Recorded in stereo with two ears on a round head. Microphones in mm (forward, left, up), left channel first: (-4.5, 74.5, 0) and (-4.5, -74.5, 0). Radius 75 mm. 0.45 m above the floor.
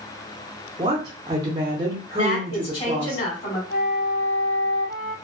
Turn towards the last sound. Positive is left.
turn(degrees=40)  # may be behind; listen again after turning